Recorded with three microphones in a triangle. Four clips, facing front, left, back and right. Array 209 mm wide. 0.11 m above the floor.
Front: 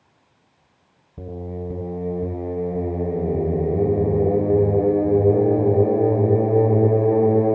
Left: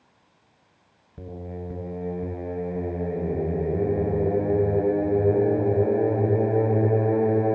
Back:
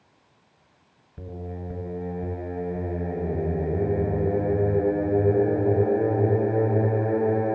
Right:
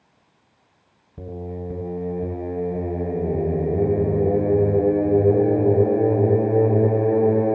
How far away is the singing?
About 1.2 m.